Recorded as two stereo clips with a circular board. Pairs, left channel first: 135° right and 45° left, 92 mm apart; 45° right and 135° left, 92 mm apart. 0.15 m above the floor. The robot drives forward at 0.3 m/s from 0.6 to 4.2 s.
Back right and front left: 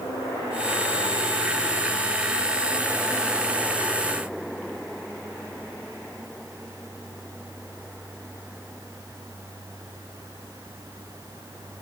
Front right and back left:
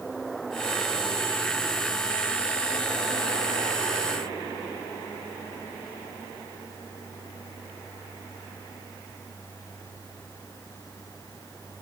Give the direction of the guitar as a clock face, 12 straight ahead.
No guitar in this recording.